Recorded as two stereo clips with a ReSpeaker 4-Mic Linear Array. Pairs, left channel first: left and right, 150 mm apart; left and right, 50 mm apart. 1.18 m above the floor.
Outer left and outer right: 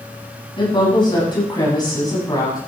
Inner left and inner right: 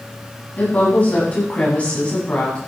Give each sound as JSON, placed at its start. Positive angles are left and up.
{"t": 0.6, "sound": "a woman speaking", "side_deg": 30, "distance_m": 8.0}